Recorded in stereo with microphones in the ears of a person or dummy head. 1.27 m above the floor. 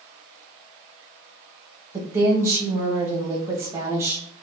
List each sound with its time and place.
1.9 s a woman speaking: 10° right (ahead or behind), 0.8 m